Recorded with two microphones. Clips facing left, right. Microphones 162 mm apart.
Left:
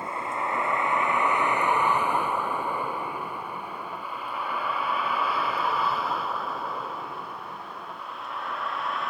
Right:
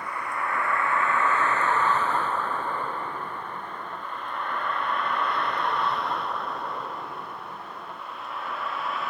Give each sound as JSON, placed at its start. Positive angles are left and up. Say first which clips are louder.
{"t": 0.0, "sound": "a vehicle", "louder": "left 1 dB", "side_deg": 25}